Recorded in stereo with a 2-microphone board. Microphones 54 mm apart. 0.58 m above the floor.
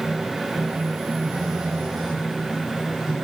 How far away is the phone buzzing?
About 6 m.